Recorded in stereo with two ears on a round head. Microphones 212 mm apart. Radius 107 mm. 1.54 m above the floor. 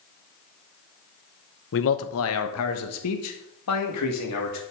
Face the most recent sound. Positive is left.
turn(degrees=80)